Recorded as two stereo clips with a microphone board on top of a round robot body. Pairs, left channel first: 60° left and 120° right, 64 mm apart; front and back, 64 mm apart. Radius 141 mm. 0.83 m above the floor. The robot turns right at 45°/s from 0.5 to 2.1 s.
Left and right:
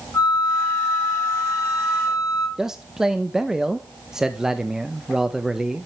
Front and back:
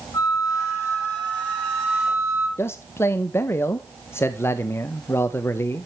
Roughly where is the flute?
Ahead.